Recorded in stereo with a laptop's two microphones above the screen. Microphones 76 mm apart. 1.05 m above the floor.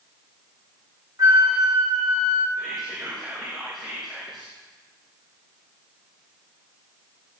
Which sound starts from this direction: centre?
Whispering, at 2.6 s.